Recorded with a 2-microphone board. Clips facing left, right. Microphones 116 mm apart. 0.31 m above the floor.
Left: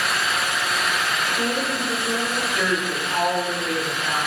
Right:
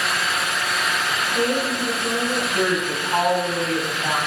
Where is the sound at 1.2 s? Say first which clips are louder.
Right 6 dB; 65° right (ahead or behind), 3 m.